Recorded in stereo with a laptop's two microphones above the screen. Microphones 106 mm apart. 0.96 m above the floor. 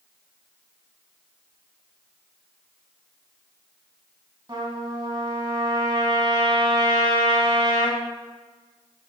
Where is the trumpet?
40° right (ahead or behind), 0.9 m.